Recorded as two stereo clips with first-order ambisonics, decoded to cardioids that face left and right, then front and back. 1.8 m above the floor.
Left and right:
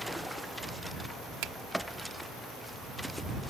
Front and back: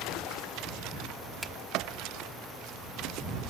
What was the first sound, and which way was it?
A finger snap, 95° right.